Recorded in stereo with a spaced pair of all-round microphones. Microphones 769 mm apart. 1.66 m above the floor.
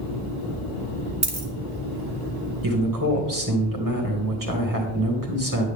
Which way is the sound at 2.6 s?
25° right (ahead or behind).